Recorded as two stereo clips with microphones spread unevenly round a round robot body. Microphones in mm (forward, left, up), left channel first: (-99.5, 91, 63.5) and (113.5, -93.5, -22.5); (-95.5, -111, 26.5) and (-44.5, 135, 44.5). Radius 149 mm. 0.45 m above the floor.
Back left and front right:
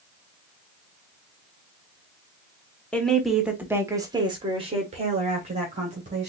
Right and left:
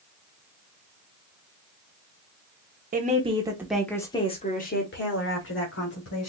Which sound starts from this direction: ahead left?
A woman speaking, at 2.9 s.